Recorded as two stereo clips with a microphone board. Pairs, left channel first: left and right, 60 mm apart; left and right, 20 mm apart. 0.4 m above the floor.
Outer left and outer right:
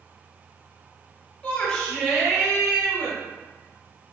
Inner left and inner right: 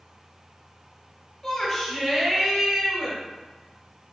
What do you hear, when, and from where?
1.4 s a shout: 20° left (ahead or behind), 1.1 m; by 3.2 s 25° right (ahead or behind), 1.8 m